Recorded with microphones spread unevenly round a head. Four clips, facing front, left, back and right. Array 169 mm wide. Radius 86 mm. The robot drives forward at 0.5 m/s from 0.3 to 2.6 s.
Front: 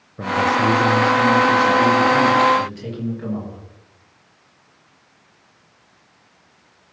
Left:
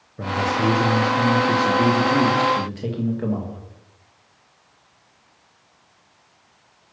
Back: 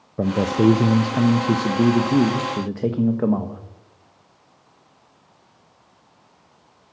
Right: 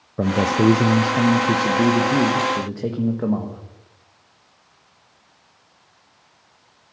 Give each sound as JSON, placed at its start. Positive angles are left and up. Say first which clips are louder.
{"t": 0.2, "sound": "a man speaking", "louder": "right 4 dB, even", "azimuth_deg": -135, "distance_m": 0.7}